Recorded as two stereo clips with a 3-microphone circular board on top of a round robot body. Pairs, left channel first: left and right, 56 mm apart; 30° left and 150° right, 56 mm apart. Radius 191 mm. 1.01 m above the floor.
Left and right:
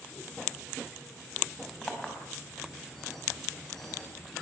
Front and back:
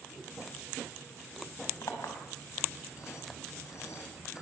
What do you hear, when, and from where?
1.8 s a clink: 5° left, 4.5 m